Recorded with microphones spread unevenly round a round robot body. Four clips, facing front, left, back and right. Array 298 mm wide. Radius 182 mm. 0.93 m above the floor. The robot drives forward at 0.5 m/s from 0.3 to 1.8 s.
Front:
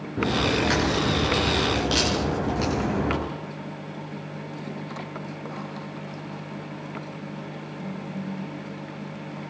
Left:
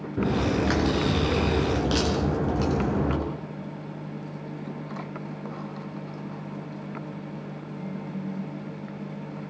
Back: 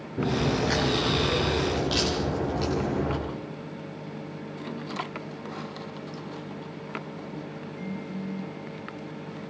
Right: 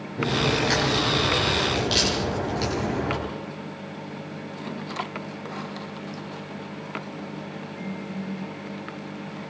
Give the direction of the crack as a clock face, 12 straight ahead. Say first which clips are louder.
Even, front 2 dB; 10 o'clock.